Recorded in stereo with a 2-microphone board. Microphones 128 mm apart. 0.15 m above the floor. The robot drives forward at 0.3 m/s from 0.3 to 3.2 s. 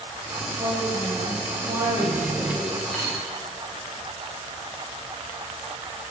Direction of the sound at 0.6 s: 20° right (ahead or behind).